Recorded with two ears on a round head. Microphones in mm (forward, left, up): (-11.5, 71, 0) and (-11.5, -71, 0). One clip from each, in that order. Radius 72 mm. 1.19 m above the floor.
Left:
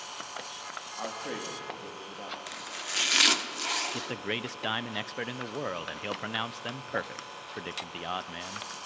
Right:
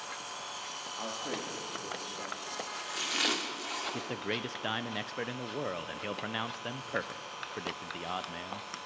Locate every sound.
1.0 s a man speaking: 60° left (ahead or behind), 2.5 m; by 2.4 s 70° left (ahead or behind), 2.5 m
2.5 s chopping: 60° left (ahead or behind), 1.6 m
3.9 s a man speaking: 15° left (ahead or behind), 0.5 m